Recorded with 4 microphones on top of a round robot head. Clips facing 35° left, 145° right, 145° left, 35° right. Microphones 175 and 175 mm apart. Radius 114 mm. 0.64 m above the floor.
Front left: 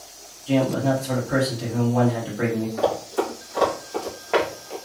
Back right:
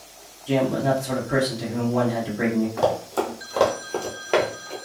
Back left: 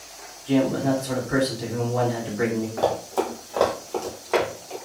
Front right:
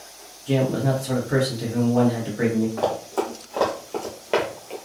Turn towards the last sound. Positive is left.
turn(degrees=-65)